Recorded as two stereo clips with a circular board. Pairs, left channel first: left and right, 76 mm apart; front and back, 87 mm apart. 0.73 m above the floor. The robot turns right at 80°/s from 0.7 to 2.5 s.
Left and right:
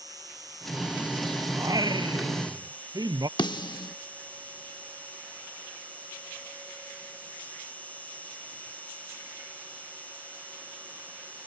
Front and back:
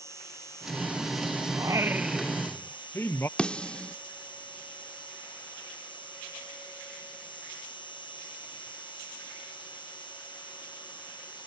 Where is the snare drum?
80° left.